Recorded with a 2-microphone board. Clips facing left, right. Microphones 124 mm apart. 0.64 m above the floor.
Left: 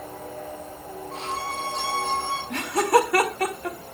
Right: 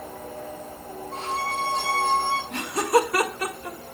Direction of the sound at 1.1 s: 80° left.